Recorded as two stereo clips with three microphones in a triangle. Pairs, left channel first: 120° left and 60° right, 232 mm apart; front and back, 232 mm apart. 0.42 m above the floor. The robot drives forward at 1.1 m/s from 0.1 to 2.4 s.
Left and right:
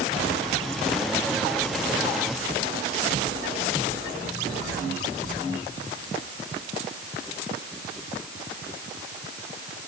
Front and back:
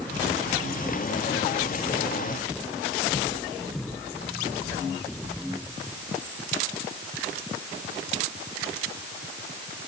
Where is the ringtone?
I don't hear a ringtone.